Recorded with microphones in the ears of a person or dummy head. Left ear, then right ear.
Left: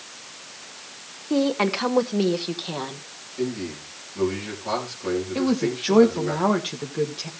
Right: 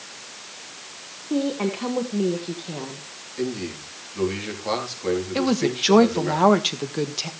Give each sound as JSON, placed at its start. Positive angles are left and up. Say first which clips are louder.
{"t": 1.3, "sound": "a woman speaking", "louder": "left 3 dB", "side_deg": 55, "distance_m": 1.4}
{"t": 3.4, "sound": "a man speaking", "louder": "even", "side_deg": -15, "distance_m": 4.0}
{"t": 5.3, "sound": "a woman speaking", "louder": "right 2 dB", "side_deg": -20, "distance_m": 1.5}